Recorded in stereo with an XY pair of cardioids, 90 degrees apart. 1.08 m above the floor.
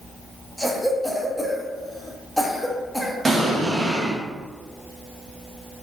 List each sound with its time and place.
0.6 s a cough: 5° left, 0.8 m
3.2 s an explosion: 35° right, 1.1 m